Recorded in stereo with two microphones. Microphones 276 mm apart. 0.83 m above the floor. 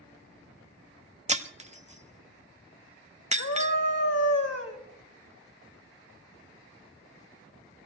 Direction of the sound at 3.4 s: 70° left (ahead or behind).